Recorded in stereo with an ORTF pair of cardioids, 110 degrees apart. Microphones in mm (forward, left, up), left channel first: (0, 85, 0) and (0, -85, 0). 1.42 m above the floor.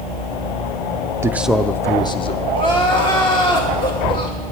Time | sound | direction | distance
1.2 | a man speaking | 15° right | 0.5 m
2.5 | crying | 30° left | 2 m